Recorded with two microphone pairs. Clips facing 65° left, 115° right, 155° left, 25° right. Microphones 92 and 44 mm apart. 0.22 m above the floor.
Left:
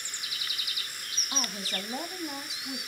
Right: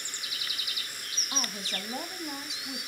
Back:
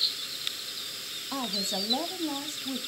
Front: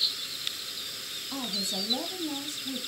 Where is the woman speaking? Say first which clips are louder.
Left 1 dB, back 2 dB; 155° left, 1.4 m.